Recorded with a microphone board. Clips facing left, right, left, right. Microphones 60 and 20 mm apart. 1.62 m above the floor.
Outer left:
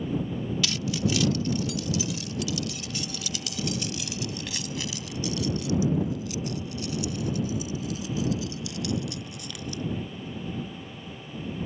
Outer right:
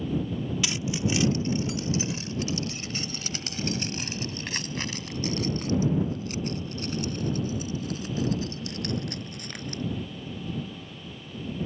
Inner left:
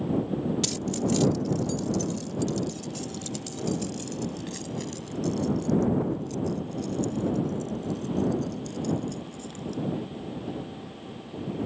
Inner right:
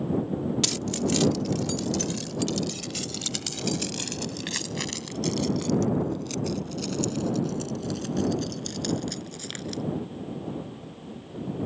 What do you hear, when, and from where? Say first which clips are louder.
0.6 s keys jangling: outer left 1 dB, inner right 1 dB; 20° right (ahead or behind); by 9.8 s 45° right (ahead or behind)